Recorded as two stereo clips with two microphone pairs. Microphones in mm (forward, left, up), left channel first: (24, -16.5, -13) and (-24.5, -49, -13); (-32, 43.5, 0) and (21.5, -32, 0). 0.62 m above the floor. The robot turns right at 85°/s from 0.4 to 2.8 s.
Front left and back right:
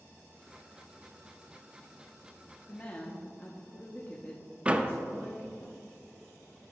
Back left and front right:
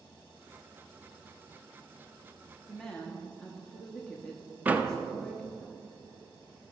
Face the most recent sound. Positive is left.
turn(degrees=-110)